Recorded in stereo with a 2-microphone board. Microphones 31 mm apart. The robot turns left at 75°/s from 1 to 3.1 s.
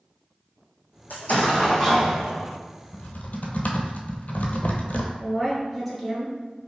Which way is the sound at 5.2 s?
5° right (ahead or behind).